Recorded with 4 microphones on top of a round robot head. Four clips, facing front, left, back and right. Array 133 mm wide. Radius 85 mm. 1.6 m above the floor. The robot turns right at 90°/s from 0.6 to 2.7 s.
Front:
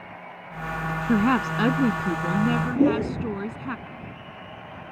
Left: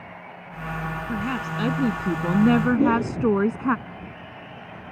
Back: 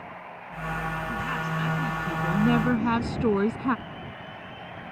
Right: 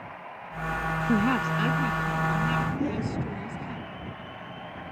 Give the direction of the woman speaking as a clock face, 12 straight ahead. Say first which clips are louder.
Right 5 dB, front 9 dB; 1 o'clock.